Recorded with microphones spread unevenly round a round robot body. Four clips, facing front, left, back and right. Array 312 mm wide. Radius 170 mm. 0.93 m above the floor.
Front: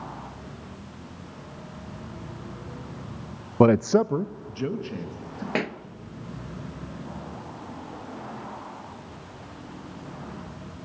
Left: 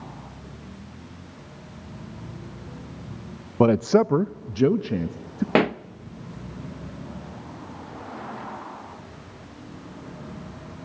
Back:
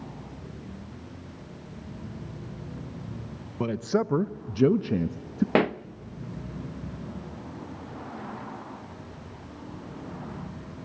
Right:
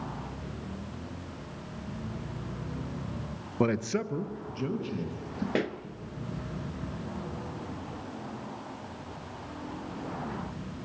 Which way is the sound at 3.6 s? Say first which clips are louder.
Left 10 dB, front 8 dB; 35° left.